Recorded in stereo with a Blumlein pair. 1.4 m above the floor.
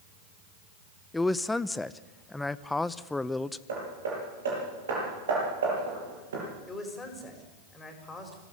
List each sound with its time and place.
1.1 s a man speaking: 5° left, 0.7 m
3.7 s hammering: 60° right, 9.5 m
6.7 s a man speaking: 10° left, 5.5 m